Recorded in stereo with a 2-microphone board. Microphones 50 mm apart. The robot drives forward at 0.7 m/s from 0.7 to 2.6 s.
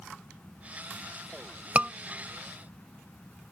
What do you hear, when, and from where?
1.8 s a scream: 25° right (ahead or behind); by 1.9 s 30° right (ahead or behind)